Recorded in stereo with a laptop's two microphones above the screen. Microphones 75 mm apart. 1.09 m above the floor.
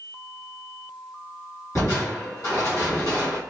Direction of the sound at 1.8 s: 50° left (ahead or behind).